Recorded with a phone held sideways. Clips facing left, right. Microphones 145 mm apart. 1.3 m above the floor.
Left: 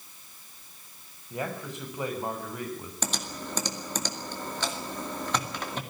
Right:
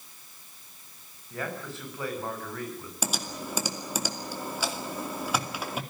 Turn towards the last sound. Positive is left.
turn(degrees=-10)  # may be behind; listen again after turning